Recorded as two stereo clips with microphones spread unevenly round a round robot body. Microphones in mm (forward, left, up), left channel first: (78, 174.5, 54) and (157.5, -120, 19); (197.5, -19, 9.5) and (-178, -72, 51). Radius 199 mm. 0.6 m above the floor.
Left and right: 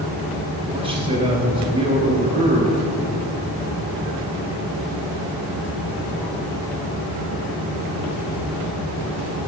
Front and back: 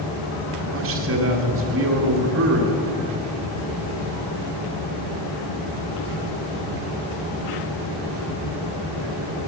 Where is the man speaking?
130° right, 1.3 m.